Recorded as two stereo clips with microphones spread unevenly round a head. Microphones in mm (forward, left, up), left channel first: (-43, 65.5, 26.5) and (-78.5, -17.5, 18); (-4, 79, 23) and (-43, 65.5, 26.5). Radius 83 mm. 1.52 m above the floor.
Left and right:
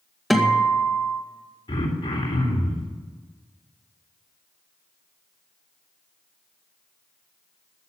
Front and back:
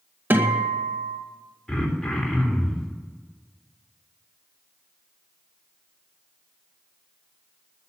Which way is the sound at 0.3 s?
155° left.